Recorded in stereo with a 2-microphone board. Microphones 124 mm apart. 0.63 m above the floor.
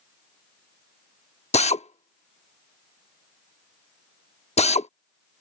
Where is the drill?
60° left (ahead or behind).